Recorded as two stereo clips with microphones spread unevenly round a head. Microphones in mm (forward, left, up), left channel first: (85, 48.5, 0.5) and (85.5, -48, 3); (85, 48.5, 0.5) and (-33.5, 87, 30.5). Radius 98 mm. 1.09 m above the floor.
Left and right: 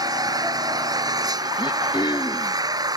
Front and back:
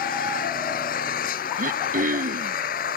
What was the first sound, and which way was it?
An engine running, 40° right.